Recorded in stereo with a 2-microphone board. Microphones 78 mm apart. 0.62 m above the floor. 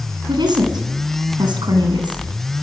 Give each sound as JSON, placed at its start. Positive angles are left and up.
{"t": 0.3, "sound": "a woman speaking", "side_deg": -70, "distance_m": 7.0}